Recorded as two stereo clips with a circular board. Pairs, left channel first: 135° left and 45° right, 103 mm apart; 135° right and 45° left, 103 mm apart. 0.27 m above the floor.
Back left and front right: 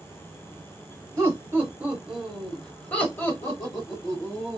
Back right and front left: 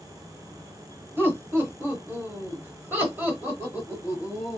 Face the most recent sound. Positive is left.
turn(degrees=120)